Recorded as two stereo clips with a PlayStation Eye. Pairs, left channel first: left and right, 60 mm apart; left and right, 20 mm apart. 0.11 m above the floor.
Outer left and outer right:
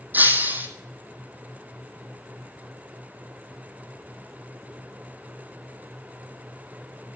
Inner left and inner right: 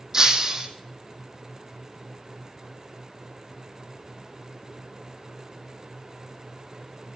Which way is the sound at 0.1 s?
30° right (ahead or behind).